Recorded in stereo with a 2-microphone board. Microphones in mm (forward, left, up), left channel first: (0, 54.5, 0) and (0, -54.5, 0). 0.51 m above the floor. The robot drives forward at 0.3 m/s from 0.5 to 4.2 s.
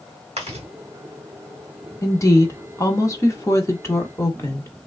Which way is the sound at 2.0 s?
30° left (ahead or behind).